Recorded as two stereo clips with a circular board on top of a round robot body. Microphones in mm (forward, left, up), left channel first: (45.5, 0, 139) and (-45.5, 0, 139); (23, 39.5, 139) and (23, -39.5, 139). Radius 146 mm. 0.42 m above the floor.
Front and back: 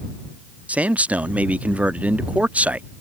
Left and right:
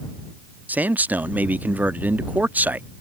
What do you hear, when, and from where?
0.7 s a man speaking: 125° right